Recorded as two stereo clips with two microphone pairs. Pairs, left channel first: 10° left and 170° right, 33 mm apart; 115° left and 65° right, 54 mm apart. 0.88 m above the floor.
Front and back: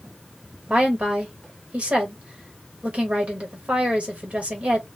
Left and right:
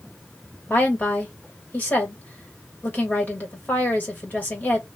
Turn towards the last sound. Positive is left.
turn(degrees=160)